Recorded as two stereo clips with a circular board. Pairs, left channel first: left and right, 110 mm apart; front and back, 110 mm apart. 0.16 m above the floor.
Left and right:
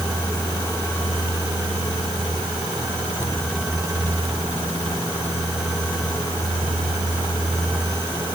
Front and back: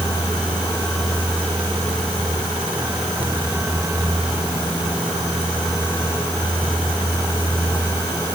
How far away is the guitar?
I don't hear a guitar.